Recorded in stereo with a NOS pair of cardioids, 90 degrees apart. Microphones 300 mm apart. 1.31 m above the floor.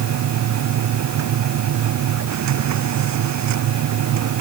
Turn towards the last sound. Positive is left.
turn(degrees=-65)